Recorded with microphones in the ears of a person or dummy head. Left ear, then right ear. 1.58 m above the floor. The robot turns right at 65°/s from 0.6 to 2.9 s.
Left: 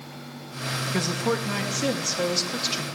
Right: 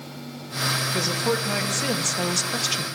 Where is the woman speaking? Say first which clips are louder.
Right 2 dB; 155° left, 1.5 m; by 2.9 s 80° right, 1.5 m.